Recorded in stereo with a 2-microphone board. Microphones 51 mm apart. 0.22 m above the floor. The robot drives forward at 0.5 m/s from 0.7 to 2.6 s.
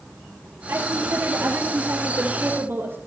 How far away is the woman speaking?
About 4.5 m.